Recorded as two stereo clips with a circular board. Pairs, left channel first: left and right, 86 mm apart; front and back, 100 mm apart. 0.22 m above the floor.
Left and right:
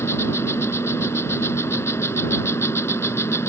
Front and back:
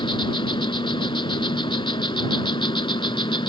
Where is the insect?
30° left.